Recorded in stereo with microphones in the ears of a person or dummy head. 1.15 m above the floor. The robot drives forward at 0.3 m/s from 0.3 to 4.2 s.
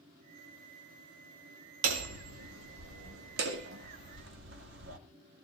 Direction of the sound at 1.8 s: 80° right.